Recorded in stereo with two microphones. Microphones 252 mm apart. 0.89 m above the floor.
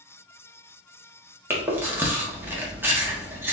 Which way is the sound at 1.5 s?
10° right (ahead or behind).